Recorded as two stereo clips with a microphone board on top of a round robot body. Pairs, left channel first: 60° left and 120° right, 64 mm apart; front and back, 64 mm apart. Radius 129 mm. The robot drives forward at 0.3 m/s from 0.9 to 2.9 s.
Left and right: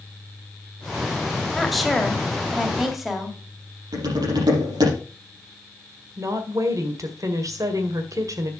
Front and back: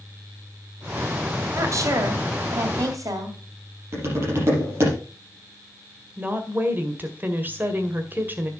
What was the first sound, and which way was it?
A woman speaking, 150° left.